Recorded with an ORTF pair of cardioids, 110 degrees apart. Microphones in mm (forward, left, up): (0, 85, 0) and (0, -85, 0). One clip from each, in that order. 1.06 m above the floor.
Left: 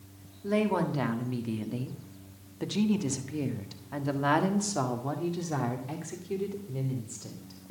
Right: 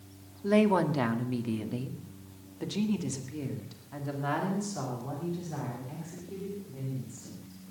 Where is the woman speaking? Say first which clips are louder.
Right 3 dB; 25° right, 1.8 m; by 7.6 s 70° left, 3 m.